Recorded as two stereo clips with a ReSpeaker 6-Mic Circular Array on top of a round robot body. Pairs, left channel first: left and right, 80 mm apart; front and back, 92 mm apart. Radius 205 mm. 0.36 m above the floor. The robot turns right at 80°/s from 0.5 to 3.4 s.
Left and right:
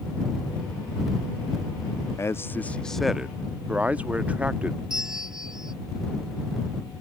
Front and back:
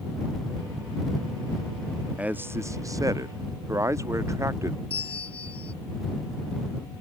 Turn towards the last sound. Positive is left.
turn(degrees=-10)